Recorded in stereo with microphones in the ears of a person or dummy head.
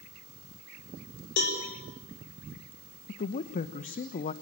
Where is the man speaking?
45° left (ahead or behind), 0.8 m.